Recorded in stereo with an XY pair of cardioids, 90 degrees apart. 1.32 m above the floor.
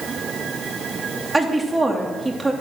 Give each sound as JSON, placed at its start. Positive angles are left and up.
{"t": 1.3, "sound": "a woman speaking", "azimuth_deg": -20, "distance_m": 3.0}